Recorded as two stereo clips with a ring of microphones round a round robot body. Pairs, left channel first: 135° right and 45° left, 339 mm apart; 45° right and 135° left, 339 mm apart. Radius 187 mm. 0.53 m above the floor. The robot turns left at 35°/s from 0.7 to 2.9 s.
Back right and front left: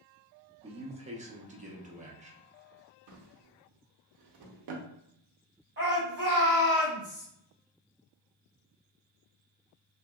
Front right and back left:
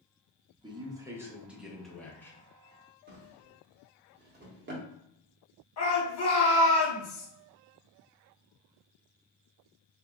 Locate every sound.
0.6 s a man speaking: 80° left, 0.6 m; by 2.4 s 20° left, 0.6 m
3.1 s a drawer: 75° left, 0.6 m
5.8 s a shout: 10° right, 1.3 m